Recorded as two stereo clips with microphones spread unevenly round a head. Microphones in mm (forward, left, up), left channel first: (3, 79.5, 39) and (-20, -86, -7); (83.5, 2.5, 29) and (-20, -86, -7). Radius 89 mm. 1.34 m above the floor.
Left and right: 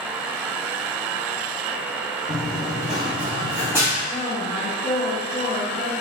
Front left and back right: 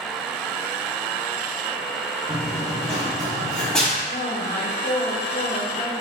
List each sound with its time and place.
2.3 s running footsteps: 75° left, 1.4 m; by 3.9 s 10° right, 1.5 m
4.0 s a woman speaking: 20° left, 1.1 m